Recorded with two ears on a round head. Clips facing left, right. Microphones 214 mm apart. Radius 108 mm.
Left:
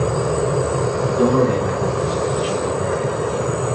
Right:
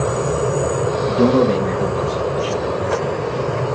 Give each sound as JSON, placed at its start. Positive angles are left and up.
{"t": 1.1, "sound": "a man speaking", "side_deg": -40, "distance_m": 1.5}